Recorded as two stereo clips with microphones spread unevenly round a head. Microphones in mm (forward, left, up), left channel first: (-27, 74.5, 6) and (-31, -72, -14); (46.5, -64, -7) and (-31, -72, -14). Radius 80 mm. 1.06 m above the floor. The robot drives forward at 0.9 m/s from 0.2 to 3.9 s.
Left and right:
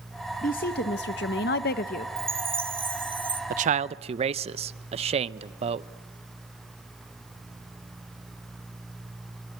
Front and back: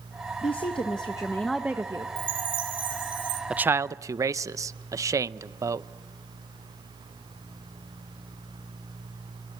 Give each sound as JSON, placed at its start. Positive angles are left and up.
{"t": 0.4, "sound": "a woman speaking", "azimuth_deg": 40, "distance_m": 1.3}
{"t": 2.2, "sound": "a chime", "azimuth_deg": -165, "distance_m": 1.7}
{"t": 3.5, "sound": "a man speaking", "azimuth_deg": -100, "distance_m": 0.6}